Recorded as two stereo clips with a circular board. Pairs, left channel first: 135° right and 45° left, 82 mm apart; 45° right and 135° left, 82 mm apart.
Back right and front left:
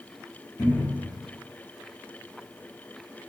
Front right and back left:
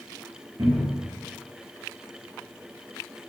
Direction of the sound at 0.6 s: 165° left.